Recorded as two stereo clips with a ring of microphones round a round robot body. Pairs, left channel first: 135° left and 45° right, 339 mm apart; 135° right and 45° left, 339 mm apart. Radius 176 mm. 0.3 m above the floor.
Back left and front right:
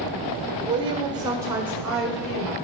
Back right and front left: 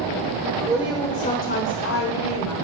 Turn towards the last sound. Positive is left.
turn(degrees=-140)